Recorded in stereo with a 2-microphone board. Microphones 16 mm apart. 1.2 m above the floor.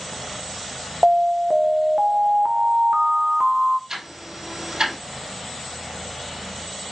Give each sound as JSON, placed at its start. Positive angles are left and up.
{"t": 1.0, "sound": "an alarm", "side_deg": -65, "distance_m": 0.7}
{"t": 3.9, "sound": "ticking", "side_deg": -50, "distance_m": 5.0}